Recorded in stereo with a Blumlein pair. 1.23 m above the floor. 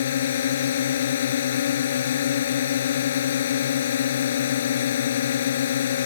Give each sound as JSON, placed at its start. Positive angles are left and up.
{"t": 0.0, "sound": "a drone", "azimuth_deg": 60}